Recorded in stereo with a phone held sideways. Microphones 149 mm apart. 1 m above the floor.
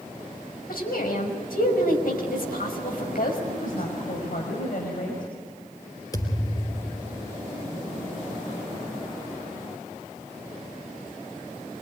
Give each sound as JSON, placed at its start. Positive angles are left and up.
{"t": 0.7, "sound": "a woman speaking", "side_deg": 85, "distance_m": 5.5}
{"t": 3.5, "sound": "a woman speaking", "side_deg": 80, "distance_m": 5.5}
{"t": 6.1, "sound": "a thud", "side_deg": 25, "distance_m": 3.5}